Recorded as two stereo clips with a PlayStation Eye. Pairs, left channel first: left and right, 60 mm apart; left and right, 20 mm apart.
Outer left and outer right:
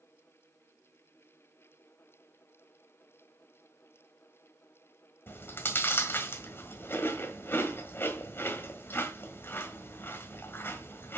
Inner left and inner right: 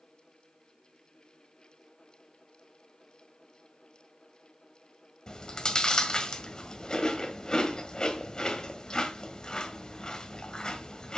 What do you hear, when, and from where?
5.3 s chewing: 40° left (ahead or behind), 1.6 m